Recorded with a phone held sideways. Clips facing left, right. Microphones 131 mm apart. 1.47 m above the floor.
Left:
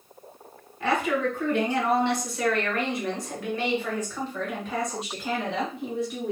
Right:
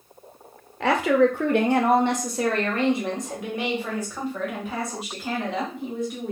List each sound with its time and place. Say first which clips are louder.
0.8 s a woman speaking: right 6 dB; 80° right, 0.9 m; by 6.3 s centre (ahead or behind), 2.5 m